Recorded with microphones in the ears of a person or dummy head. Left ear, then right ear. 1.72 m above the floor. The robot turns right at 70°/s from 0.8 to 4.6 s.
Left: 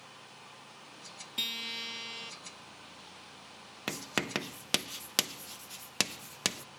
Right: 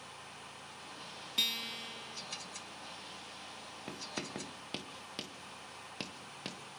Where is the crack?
I don't hear a crack.